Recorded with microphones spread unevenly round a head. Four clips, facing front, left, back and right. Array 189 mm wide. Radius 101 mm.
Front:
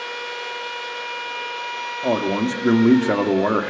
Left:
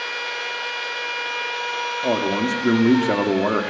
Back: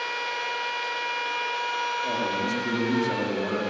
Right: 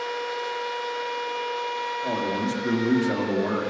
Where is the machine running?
100° left, 10 m.